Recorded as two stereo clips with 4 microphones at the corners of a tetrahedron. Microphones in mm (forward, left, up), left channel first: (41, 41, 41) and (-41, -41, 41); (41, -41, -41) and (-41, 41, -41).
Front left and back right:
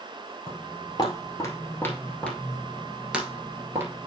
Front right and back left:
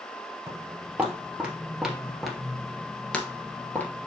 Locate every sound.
0.5 s footsteps: 65° left, 1.8 m; by 4.1 s 105° right, 1.6 m